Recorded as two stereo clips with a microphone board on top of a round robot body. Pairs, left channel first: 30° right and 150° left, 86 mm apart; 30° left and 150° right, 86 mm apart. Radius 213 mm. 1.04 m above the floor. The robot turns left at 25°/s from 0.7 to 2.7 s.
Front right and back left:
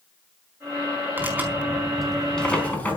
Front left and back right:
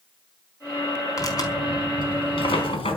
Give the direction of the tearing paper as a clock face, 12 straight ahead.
9 o'clock.